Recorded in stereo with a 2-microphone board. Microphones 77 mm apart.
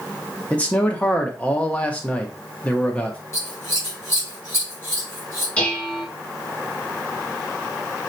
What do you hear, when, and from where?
0.5 s a man speaking: 15° left (ahead or behind), 1.2 m
3.3 s scissors: 35° left (ahead or behind), 3.5 m
5.6 s dishes clattering: 20° left (ahead or behind), 3 m